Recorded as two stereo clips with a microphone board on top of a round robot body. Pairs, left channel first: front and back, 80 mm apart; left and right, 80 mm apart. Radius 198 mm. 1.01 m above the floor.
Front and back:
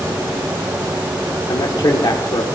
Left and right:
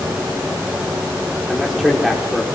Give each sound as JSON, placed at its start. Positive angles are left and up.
{"t": 1.5, "sound": "a man speaking", "azimuth_deg": -5, "distance_m": 1.5}